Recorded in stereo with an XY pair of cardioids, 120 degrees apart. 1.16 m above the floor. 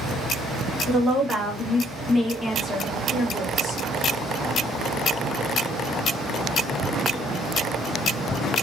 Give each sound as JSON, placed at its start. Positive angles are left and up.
{"t": 0.9, "sound": "a woman speaking", "azimuth_deg": -20, "distance_m": 1.6}